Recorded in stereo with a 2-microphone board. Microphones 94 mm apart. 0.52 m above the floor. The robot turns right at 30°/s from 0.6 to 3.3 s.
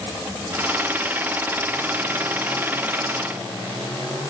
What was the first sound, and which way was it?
Only background noise.